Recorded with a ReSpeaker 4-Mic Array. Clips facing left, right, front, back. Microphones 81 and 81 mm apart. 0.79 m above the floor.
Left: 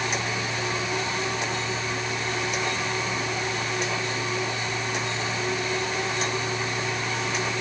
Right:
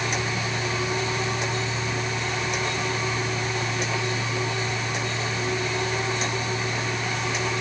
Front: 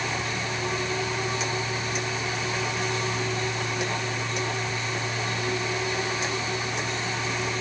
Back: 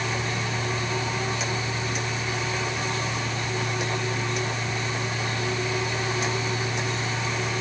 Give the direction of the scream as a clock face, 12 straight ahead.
I don't hear a scream.